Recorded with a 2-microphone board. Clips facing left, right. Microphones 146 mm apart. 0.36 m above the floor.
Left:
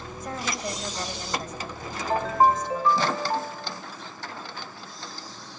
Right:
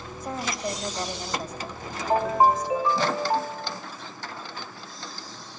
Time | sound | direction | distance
0.2 | a woman speaking | centre (ahead or behind) | 1.8 m
2.1 | a ringtone | 15° right (ahead or behind) | 0.5 m